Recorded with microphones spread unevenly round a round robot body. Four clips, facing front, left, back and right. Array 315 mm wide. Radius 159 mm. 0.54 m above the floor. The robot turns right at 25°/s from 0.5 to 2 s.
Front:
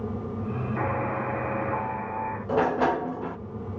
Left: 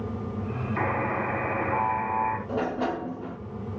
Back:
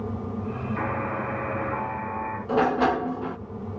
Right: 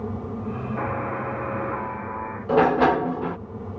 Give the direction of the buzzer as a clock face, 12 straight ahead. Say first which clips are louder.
Left 2 dB, front 1 dB; 10 o'clock.